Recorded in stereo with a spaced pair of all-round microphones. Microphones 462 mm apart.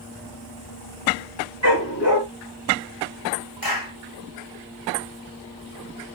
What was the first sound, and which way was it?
A dog barking, 30° left (ahead or behind).